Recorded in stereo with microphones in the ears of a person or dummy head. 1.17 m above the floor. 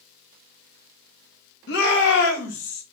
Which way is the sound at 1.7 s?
60° left (ahead or behind).